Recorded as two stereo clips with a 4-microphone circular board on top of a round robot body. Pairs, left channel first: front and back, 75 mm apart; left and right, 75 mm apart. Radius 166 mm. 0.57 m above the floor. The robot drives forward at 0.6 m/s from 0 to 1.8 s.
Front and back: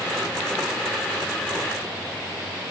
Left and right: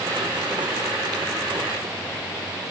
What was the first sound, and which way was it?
Only background noise.